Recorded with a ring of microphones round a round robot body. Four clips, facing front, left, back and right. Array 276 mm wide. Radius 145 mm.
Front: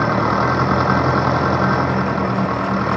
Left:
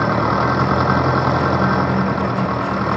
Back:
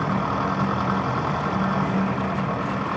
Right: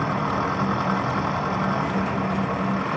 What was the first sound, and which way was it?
An engine running, 45° left.